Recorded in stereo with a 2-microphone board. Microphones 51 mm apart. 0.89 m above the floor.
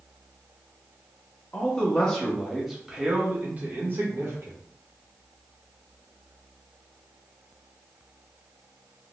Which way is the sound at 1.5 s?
25° left (ahead or behind).